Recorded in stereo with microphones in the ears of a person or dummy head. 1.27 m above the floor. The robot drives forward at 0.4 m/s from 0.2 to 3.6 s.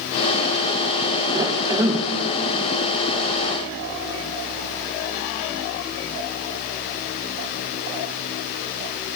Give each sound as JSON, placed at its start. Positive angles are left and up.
{"t": 1.3, "sound": "a cough", "side_deg": -20, "distance_m": 1.1}